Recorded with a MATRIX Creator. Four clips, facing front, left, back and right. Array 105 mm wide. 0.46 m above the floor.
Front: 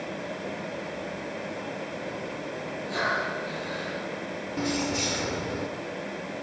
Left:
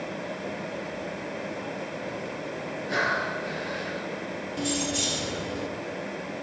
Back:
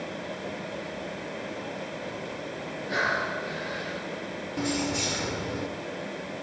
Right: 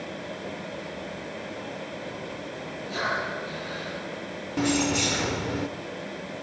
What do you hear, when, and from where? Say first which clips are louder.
2.9 s breathing: left 2 dB, back 1 dB; 125° left, 7.5 m
4.6 s keys jangling: right 6 dB, even; 85° right, 0.8 m